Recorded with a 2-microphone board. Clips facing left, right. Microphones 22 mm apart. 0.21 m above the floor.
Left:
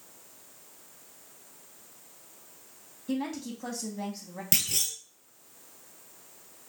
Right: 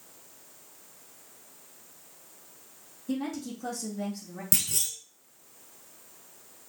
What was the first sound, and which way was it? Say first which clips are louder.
A woman speaking: even; 35° left (ahead or behind).